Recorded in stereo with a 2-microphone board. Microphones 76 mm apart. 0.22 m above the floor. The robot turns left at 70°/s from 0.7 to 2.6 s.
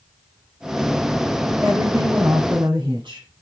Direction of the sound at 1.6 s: 25° right.